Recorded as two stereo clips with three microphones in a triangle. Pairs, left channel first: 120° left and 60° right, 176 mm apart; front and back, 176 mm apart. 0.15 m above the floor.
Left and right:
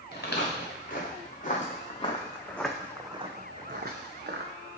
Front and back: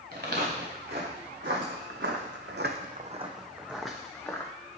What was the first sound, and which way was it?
Footsteps, 150° left.